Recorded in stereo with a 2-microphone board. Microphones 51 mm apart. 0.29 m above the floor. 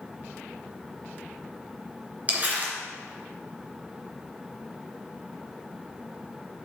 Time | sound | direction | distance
2.3 | crumpling | 35° right (ahead or behind) | 2.5 m